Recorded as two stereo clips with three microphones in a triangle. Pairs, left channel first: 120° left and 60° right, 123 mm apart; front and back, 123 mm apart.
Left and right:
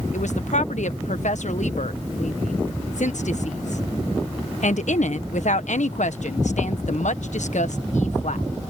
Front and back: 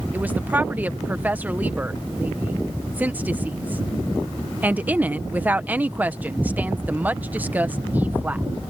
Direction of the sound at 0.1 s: 105° left.